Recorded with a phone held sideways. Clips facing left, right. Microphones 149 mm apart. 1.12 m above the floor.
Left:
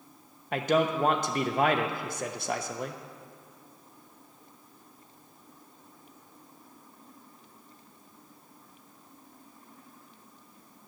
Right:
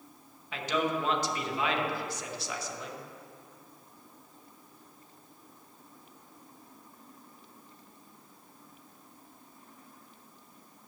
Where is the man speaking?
55° left (ahead or behind), 0.9 m.